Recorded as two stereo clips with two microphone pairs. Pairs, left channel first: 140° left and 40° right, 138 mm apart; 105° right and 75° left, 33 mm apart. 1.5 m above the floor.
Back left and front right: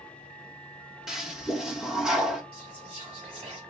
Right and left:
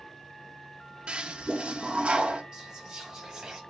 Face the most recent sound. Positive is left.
turn(degrees=5)